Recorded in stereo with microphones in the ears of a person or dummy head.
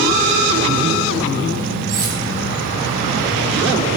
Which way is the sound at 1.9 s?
50° right (ahead or behind).